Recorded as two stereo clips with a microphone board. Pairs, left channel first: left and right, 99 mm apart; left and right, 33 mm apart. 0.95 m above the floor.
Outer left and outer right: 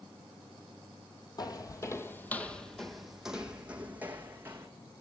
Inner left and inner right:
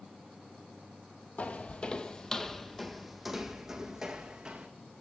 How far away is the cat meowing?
I don't hear a cat meowing.